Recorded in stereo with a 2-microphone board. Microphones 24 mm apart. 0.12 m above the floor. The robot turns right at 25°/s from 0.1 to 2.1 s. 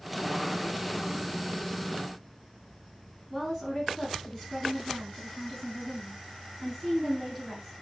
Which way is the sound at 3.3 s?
5° right (ahead or behind).